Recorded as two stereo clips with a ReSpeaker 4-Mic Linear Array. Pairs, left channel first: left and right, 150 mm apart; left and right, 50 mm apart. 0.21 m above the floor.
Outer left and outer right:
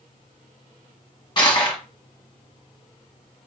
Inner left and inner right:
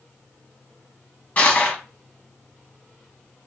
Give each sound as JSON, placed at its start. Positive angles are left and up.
{"t": 1.4, "sound": "crushing", "side_deg": 35, "distance_m": 0.9}